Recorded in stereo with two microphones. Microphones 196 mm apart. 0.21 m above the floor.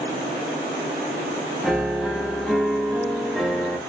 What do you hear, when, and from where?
1.6 s a piano: centre (ahead or behind), 0.8 m